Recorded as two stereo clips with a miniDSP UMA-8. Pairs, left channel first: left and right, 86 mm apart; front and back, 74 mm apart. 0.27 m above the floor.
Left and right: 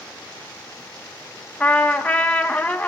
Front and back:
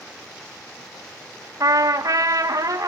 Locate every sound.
1.6 s a trumpet: 160° left, 1.2 m